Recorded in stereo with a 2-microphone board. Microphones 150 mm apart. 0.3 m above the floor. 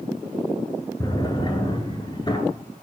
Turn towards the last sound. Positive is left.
turn(degrees=25)  # may be behind; listen again after turning